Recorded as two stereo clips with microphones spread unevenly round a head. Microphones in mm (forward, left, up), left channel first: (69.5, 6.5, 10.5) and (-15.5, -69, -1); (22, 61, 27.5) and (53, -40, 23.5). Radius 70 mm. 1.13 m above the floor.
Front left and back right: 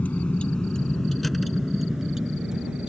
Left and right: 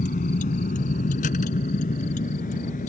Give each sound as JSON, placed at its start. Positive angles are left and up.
{"t": 0.0, "sound": "a vehicle", "azimuth_deg": 120}